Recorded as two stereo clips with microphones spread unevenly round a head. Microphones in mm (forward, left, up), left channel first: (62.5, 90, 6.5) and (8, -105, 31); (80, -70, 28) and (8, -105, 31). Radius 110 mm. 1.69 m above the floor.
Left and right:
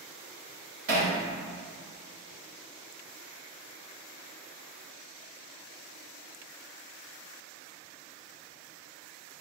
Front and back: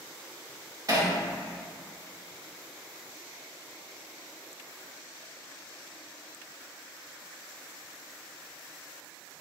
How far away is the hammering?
About 2.5 m.